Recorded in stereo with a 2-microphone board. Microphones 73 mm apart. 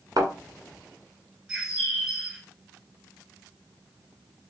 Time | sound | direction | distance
0.2 | a thud | 60° right (ahead or behind) | 1.2 m
1.5 | a bird | 10° right (ahead or behind) | 2 m